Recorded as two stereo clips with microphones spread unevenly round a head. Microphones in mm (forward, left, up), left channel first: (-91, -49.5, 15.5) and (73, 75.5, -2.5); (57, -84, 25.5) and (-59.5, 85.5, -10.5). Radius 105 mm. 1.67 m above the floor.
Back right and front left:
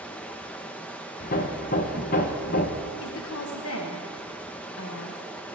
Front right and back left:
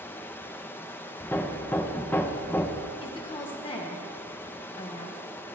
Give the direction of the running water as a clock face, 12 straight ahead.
3 o'clock.